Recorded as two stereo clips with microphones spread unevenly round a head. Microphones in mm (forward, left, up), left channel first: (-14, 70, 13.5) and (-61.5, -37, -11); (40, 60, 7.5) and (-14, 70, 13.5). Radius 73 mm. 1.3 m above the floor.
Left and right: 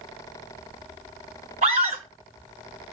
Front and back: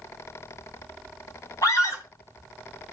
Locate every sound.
1.6 s a scream: 65° right, 5 m